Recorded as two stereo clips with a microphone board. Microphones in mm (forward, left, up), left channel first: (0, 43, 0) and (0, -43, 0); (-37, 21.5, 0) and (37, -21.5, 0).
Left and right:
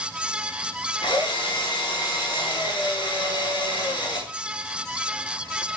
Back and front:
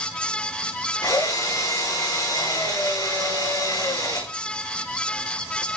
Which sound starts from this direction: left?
A drill, at 1.0 s.